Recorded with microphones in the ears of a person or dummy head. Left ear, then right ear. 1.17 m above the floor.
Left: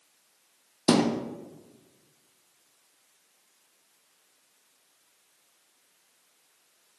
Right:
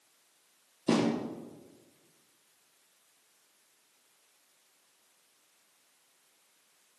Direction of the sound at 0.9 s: 55° left (ahead or behind).